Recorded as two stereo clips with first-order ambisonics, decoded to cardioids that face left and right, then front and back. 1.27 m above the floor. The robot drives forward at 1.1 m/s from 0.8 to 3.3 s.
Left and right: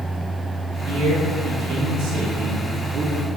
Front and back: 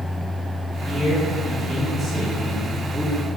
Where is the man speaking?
75° right, 3 m; by 3.3 s 120° right, 3.5 m.